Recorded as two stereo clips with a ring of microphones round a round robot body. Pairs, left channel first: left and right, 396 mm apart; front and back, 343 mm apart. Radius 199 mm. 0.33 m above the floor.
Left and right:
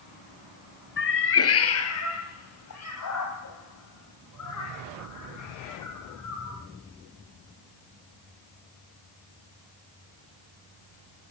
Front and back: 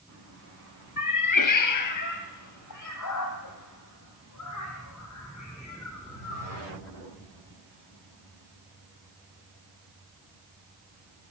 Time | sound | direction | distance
1.0 | a cat meowing | 30° left | 1.2 m